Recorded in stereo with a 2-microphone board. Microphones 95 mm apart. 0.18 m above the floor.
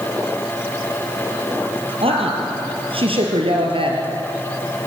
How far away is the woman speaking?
About 4.5 m.